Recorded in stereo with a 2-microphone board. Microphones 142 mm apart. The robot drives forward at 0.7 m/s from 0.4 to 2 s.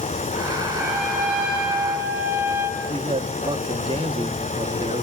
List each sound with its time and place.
0.8 s a trumpet: 10° right (ahead or behind), 4.5 m
2.8 s a man speaking: 40° right (ahead or behind), 1.8 m